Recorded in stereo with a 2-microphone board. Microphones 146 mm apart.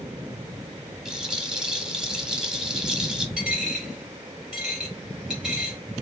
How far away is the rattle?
About 0.8 m.